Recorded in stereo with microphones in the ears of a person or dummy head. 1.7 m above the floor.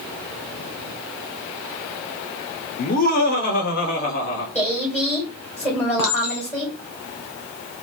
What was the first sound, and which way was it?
Laughter, 45° left (ahead or behind).